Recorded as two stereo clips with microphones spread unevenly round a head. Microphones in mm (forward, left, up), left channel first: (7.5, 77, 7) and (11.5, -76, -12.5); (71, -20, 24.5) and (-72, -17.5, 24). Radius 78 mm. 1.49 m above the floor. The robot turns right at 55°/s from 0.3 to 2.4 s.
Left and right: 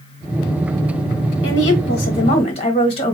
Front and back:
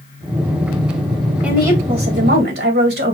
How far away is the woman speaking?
About 1.8 m.